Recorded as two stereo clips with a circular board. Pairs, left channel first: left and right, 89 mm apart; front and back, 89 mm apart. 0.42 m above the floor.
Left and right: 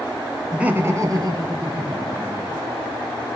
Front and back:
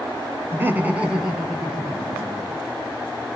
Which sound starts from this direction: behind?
Laughter, at 0.5 s.